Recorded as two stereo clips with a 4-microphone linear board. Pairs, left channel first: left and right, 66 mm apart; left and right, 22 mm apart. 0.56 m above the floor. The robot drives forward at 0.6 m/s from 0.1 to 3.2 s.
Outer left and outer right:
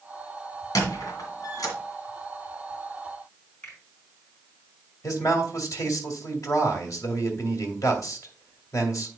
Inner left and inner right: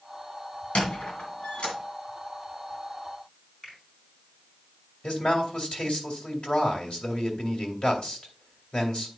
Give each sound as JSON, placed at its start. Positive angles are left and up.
{"t": 0.8, "sound": "a squeak", "side_deg": 80, "distance_m": 2.0}
{"t": 3.6, "sound": "a finger snap", "side_deg": 20, "distance_m": 5.0}
{"t": 5.0, "sound": "a man speaking", "side_deg": 65, "distance_m": 2.0}